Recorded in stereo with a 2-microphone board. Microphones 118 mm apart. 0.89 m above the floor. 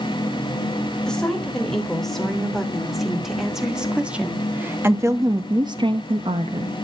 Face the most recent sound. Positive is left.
turn(degrees=-55)  # may be behind; listen again after turning